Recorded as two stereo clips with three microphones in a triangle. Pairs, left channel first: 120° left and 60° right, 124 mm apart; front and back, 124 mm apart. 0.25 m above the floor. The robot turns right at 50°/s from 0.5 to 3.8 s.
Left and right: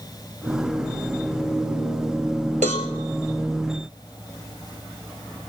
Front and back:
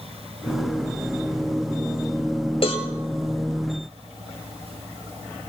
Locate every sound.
2.6 s a cowbell: 40° right, 1.9 m; by 2.9 s 30° right, 1.9 m